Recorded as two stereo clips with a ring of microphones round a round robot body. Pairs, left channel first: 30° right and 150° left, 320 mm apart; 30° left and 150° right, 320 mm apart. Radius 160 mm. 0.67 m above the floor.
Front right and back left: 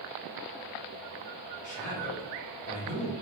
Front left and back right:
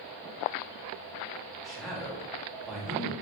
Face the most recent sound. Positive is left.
turn(degrees=-60)